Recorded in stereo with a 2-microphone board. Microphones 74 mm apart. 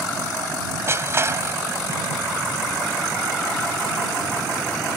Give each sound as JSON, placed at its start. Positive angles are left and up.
{"t": 0.9, "sound": "crushing", "side_deg": -35}